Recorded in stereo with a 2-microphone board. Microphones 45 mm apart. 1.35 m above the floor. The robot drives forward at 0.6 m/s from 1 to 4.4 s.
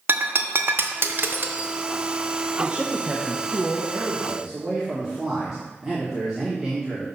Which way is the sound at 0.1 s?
50° right (ahead or behind).